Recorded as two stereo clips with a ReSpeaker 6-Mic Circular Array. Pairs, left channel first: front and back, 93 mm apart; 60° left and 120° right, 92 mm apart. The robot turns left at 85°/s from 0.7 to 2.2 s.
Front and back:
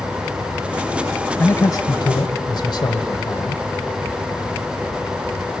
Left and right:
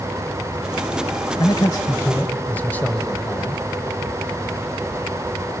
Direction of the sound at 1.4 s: 60° left.